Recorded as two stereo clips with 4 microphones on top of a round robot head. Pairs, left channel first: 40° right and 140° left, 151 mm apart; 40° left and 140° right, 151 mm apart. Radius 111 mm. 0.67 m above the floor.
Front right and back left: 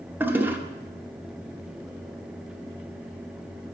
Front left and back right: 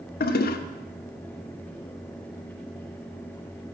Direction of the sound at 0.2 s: 65° left.